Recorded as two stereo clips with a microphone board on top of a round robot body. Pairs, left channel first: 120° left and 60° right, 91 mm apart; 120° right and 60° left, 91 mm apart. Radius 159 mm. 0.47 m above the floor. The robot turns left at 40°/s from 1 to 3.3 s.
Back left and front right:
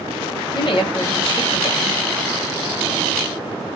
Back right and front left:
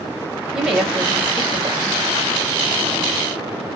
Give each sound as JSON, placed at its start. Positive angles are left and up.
{"t": 0.5, "sound": "a woman speaking", "azimuth_deg": 140, "distance_m": 1.7}